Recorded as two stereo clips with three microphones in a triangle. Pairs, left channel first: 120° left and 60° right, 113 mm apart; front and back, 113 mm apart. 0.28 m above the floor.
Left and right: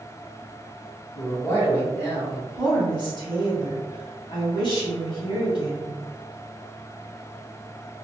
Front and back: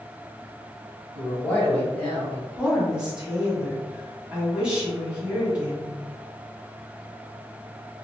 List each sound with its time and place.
1.1 s a man speaking: 70° left, 1.6 m
2.5 s a woman speaking: 100° left, 1.8 m